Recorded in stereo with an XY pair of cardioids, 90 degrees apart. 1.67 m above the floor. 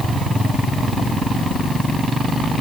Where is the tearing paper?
No tearing paper in this recording.